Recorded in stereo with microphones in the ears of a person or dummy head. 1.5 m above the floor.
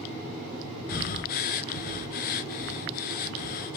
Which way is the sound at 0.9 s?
50° left (ahead or behind).